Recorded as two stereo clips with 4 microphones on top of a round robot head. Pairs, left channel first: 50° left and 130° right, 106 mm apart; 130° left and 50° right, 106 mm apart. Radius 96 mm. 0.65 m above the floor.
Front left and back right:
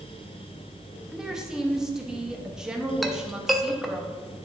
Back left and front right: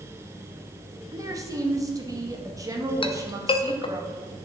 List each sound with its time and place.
1.1 s a woman speaking: 50° right, 1.2 m
3.0 s a clink: 140° left, 0.7 m